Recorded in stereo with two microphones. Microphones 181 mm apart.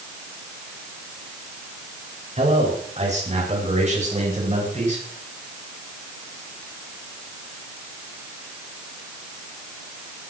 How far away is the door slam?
No door slam in this recording.